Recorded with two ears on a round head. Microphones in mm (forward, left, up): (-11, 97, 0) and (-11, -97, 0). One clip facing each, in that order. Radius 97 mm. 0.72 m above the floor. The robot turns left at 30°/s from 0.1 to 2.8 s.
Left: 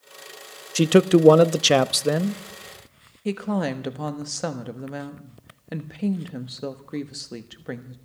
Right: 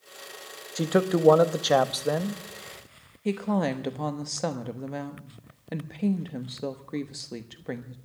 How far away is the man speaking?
About 0.6 m.